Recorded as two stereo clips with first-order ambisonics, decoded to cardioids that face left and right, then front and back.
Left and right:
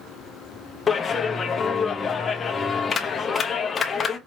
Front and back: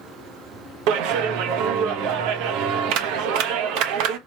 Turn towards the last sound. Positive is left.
turn(degrees=160)